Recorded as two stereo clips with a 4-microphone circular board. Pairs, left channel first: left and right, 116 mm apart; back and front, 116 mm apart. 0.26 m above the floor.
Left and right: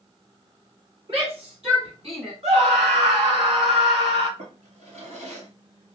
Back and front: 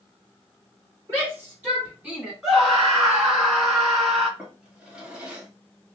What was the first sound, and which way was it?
A shout, 65° right.